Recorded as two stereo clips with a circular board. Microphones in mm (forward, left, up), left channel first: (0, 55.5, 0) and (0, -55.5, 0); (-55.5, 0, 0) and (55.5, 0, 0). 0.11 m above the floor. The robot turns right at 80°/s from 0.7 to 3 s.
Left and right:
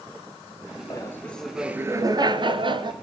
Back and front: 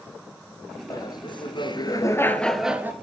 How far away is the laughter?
About 1.6 m.